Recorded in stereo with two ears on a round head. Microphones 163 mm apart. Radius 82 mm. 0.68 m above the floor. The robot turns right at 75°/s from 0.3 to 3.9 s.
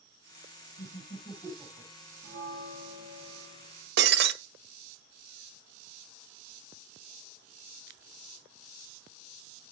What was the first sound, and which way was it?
Laughter, 55° left (ahead or behind).